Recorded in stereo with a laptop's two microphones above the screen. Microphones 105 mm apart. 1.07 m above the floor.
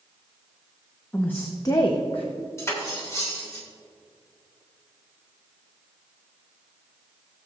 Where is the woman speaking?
15° left (ahead or behind), 0.9 m; by 2.3 s 65° left (ahead or behind), 0.9 m.